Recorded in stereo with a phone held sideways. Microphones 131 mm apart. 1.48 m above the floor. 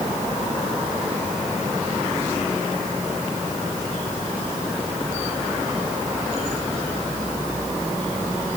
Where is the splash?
No splash in this recording.